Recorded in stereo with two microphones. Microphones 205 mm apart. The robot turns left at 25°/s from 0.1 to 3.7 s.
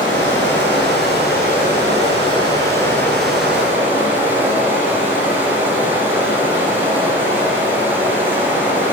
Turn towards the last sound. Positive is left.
turn(degrees=-10)